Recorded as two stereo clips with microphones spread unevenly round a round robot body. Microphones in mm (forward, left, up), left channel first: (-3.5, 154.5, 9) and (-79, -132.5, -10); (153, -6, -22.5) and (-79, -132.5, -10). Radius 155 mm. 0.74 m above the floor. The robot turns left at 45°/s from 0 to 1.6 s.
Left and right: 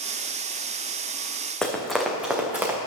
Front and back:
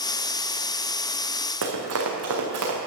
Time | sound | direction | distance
1.6 | running footsteps | 160° left | 2.5 m